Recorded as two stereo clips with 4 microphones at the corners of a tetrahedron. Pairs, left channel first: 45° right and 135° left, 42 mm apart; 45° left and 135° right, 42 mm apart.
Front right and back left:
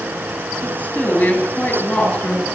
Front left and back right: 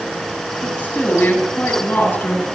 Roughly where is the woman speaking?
Ahead.